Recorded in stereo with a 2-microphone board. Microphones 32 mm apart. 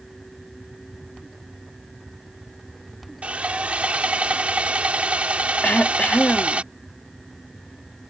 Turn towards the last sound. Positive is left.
turn(degrees=55)  # may be behind; listen again after turning